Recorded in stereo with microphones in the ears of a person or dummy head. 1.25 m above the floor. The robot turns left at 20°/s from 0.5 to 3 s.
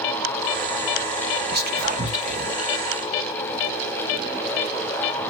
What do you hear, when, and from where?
1.5 s whispering: 50° right (ahead or behind), 1.3 m; by 2.6 s 30° right (ahead or behind), 1.3 m